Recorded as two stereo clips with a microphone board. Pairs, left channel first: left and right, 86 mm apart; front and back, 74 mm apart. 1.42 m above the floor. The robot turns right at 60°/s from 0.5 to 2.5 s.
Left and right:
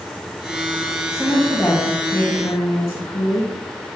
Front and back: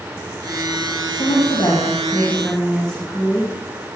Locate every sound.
1.1 s a woman speaking: 5° right, 2.5 m; by 3.5 s 75° left, 2.5 m